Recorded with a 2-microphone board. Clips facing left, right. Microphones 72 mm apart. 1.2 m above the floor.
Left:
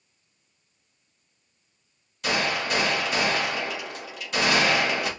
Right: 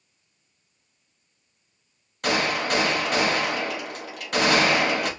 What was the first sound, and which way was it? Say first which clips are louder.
A gunshot: right 2 dB; 60° right (ahead or behind).